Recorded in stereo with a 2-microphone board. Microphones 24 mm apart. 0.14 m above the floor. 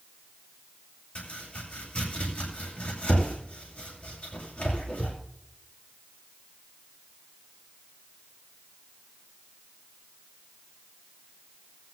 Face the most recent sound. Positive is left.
turn(degrees=75)  # may be behind; listen again after turning